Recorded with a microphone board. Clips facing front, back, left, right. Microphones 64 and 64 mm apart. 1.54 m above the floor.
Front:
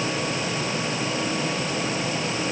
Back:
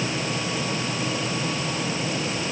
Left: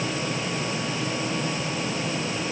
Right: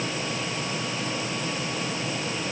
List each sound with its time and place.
Only background noise.